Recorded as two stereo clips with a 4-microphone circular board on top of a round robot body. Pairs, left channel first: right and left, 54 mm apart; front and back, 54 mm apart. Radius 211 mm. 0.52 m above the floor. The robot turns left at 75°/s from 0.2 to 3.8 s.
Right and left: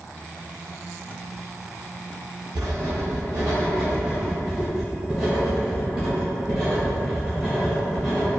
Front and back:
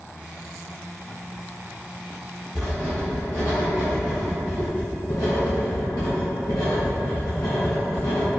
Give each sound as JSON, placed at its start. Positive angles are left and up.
{"t": 2.5, "sound": "writing", "azimuth_deg": 110, "distance_m": 0.6}